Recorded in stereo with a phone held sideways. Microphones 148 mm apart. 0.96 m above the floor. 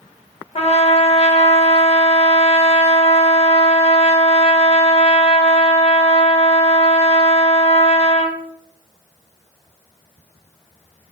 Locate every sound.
0.6 s a trumpet: 45° left (ahead or behind), 0.6 m